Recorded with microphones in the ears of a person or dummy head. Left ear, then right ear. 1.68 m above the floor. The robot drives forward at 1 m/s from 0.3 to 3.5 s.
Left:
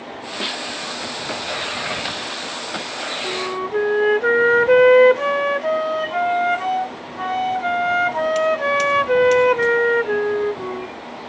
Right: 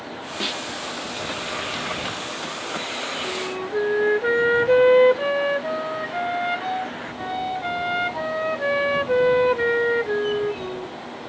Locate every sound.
0.4 s a snare drum: 10° left (ahead or behind); by 0.6 s 5° left (ahead or behind)
3.2 s a flute: 45° left (ahead or behind); by 11.0 s 40° left (ahead or behind)